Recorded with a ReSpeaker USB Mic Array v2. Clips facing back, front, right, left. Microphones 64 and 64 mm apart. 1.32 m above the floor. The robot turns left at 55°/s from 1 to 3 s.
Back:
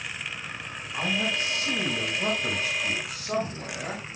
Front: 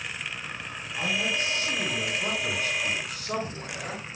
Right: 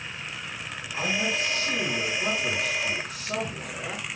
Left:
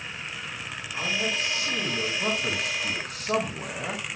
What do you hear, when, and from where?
0.9 s a man speaking: 150° right, 6 m; by 4.2 s 100° left, 6 m